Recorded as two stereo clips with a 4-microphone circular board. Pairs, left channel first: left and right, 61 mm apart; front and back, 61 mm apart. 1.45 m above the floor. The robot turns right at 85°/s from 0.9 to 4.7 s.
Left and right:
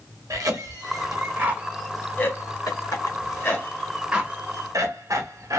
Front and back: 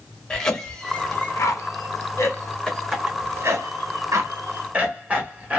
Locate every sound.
0.3 s a cough: 80° right, 1.3 m; by 5.6 s 115° right, 1.3 m